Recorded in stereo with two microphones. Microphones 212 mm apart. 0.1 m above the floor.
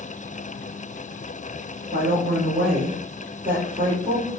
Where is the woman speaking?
15° right (ahead or behind), 2 m.